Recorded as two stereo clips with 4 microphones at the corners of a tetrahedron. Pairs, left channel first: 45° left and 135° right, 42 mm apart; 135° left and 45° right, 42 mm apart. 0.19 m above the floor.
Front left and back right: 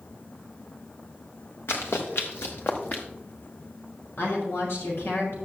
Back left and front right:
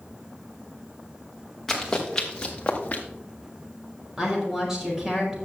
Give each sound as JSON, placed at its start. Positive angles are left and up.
{"t": 1.7, "sound": "running footsteps", "azimuth_deg": 55, "distance_m": 2.5}
{"t": 4.2, "sound": "a woman speaking", "azimuth_deg": 30, "distance_m": 5.0}